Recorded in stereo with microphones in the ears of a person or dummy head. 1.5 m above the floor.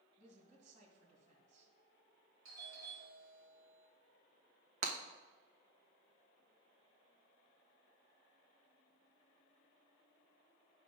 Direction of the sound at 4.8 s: 45° right (ahead or behind).